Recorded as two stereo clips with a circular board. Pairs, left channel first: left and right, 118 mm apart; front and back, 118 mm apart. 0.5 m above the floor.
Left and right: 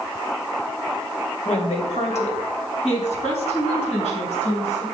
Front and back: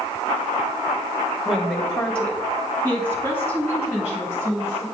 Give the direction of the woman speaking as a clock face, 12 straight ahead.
9 o'clock.